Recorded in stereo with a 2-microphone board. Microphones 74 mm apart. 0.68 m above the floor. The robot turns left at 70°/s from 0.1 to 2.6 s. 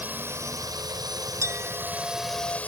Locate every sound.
0.0 s a drone: 25° right; by 2.7 s 160° left
1.4 s a clink: 140° right; by 2.6 s 140° left